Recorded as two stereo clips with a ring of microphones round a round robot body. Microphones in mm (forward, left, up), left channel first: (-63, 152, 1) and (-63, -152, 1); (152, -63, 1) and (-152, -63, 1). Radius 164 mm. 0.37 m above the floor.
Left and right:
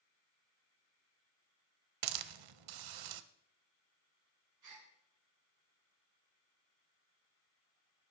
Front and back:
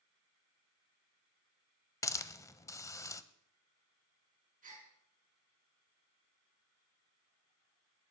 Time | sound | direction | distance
2.0 | a hiss | 80° right | 0.7 m
4.6 | a gasp | 115° right | 4 m